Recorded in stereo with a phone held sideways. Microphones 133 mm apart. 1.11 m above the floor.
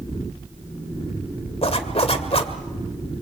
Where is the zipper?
50° left (ahead or behind), 1.9 m.